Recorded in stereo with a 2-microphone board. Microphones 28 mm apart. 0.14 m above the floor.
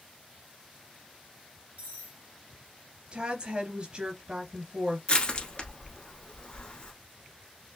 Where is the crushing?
40° left (ahead or behind), 1.3 m.